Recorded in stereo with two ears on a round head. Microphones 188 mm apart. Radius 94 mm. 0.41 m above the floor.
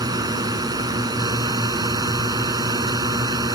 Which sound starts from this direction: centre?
A drone, at 0.0 s.